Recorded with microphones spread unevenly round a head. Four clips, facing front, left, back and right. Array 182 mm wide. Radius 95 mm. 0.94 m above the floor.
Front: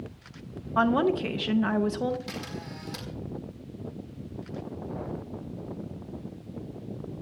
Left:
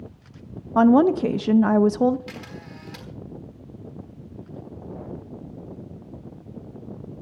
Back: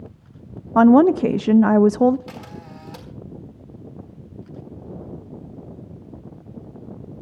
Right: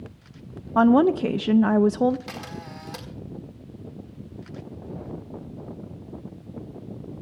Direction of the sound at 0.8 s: 165° right.